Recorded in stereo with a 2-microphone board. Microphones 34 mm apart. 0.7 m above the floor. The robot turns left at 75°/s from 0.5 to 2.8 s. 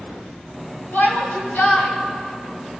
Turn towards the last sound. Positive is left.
turn(degrees=-20)